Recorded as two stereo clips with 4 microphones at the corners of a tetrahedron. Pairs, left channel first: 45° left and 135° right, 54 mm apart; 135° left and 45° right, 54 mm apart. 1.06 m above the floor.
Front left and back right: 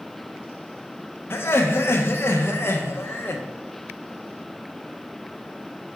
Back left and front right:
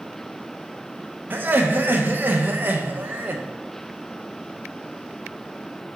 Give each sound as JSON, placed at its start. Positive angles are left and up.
{"t": 1.3, "sound": "laughter", "azimuth_deg": 5, "distance_m": 0.6}